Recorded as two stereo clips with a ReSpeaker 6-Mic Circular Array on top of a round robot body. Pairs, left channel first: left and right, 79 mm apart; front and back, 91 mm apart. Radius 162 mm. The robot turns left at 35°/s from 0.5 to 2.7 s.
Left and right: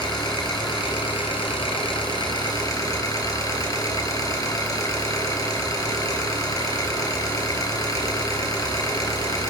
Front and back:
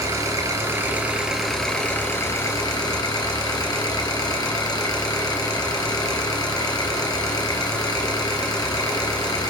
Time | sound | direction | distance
0.0 | an engine running | 125° left | 5 m